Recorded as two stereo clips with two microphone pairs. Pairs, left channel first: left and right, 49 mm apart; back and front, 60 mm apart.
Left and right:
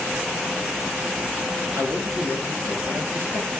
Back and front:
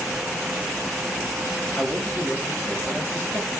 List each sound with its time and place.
1.8 s a man speaking: 130° right, 8.5 m